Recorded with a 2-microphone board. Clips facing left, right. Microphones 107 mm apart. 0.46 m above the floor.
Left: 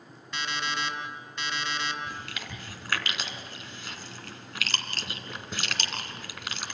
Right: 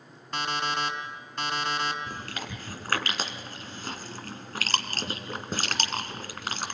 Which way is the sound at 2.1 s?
40° right (ahead or behind).